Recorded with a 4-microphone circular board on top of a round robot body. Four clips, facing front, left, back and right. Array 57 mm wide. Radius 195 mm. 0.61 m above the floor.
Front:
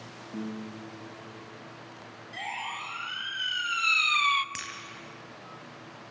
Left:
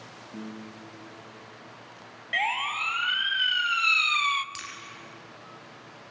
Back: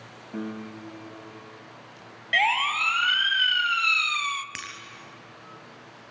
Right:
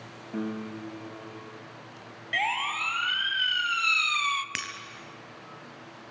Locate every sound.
0.3 s a piano: 135° right, 1.3 m
2.3 s a siren: 175° left, 2 m; by 4.5 s 15° left, 1.2 m
4.5 s breaking glass: 100° right, 2.5 m